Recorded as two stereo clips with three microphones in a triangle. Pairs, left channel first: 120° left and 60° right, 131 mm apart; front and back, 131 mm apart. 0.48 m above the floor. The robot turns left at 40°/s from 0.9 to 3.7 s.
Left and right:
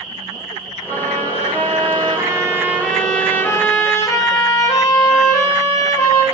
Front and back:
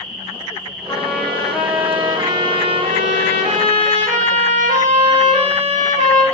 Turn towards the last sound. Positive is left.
turn(degrees=180)